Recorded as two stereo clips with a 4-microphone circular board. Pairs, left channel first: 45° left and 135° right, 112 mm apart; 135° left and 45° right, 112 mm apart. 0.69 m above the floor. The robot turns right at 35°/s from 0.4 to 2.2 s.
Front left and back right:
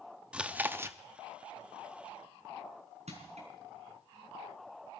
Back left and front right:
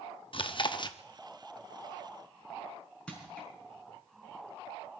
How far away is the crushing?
About 5 m.